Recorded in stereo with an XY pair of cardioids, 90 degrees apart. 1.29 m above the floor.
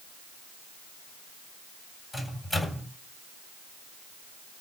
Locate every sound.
2.1 s a microwave: 30° left, 8.5 m